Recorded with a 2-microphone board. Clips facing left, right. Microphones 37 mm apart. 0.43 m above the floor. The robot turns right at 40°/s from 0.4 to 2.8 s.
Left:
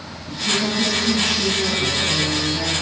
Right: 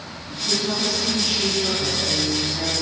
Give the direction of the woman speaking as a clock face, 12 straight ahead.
10 o'clock.